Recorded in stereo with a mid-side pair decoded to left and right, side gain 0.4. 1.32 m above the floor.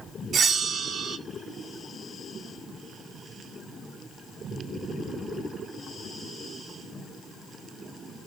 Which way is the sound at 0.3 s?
65° right.